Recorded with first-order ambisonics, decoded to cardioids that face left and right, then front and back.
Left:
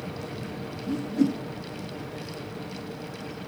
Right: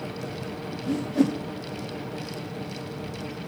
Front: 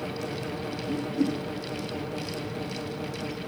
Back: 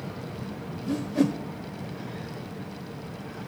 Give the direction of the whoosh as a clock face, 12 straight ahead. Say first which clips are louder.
Right 2 dB, back 3 dB; 4 o'clock.